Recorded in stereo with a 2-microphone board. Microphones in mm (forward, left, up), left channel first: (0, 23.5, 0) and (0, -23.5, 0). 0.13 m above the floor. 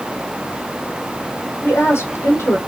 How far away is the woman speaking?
About 4.5 m.